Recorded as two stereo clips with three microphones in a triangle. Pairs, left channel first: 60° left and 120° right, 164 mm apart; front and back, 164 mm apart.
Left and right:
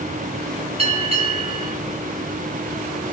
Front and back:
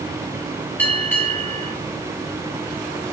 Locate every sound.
0.8 s a bell: 80° right, 1.0 m